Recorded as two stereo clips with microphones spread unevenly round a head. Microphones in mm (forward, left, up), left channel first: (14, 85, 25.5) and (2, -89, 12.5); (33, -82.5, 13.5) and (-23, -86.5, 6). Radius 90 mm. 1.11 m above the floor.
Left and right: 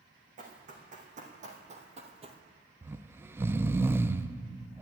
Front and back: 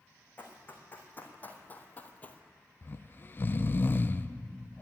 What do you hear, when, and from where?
0.4 s running footsteps: 45° right, 4 m; by 2.4 s 40° right, 1.5 m
2.8 s snoring: 35° right, 0.6 m